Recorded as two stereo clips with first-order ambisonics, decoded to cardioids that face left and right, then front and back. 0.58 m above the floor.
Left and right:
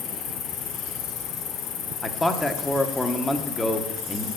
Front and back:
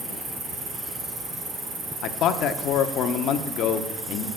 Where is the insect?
115° left, 1.4 m.